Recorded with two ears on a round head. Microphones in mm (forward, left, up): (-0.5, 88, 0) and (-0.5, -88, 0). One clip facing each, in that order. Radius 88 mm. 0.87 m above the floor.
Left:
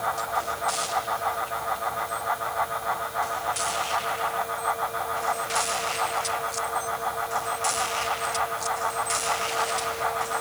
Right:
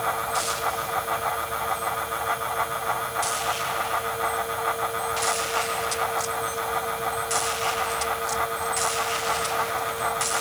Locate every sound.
Only background noise.